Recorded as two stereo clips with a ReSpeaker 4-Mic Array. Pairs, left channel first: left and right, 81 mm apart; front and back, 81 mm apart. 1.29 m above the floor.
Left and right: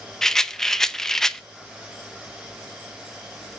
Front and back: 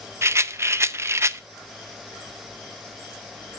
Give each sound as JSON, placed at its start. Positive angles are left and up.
{"t": 0.2, "sound": "a rattle", "azimuth_deg": 170, "distance_m": 0.5}